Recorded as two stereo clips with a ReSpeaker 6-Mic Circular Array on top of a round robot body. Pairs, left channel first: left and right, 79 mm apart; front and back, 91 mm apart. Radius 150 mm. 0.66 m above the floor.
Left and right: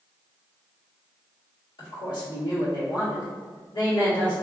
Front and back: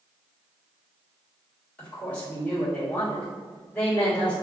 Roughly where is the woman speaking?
Left.